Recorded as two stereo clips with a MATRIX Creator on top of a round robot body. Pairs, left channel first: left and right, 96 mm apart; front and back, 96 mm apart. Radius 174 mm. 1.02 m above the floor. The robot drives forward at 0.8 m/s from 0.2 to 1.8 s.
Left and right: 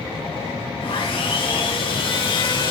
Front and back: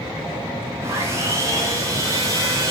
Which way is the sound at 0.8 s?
120° left.